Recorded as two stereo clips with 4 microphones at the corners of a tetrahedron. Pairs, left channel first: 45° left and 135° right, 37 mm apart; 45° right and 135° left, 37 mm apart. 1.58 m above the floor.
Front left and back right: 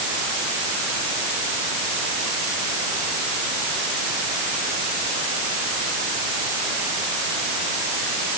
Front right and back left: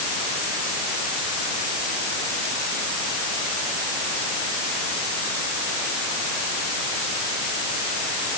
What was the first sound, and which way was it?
Only background noise.